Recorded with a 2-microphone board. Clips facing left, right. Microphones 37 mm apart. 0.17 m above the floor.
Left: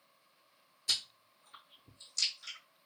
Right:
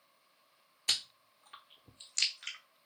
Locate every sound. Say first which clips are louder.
0.9 s chewing: right 1 dB; 65° right (ahead or behind), 0.6 m